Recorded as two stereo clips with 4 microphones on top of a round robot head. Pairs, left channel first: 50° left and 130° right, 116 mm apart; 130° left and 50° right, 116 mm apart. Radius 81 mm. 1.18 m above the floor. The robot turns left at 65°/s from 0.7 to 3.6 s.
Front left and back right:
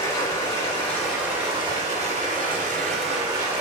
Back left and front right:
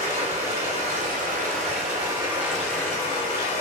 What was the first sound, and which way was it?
Running water, 20° right.